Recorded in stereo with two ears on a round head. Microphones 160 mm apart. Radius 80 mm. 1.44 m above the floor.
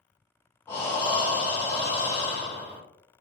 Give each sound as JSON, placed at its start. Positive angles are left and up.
{"t": 0.7, "sound": "breathing", "side_deg": 15, "distance_m": 1.0}